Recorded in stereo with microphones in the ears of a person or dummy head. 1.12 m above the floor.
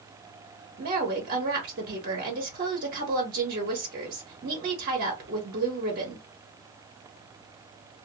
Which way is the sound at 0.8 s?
55° right (ahead or behind).